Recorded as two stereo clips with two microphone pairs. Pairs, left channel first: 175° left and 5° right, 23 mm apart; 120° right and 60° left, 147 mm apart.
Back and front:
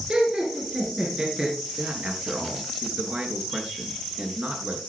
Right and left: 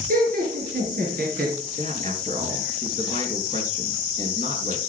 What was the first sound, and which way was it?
Laughter, 45° left.